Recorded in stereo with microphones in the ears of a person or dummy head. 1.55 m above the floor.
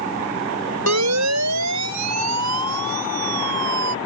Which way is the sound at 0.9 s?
90° right.